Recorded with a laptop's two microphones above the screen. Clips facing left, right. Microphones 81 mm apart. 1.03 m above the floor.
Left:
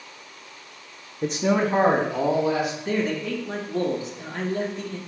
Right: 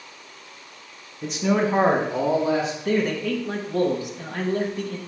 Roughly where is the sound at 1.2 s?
Left.